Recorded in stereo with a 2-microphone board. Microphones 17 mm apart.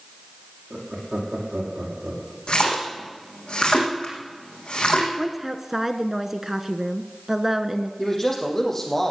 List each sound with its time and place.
0.7 s laughter: 55° right (ahead or behind), 5.5 m
2.5 s a splash: 80° left, 4.5 m
5.2 s a woman speaking: 20° right (ahead or behind), 1.2 m
8.0 s a man speaking: 20° left (ahead or behind), 4.5 m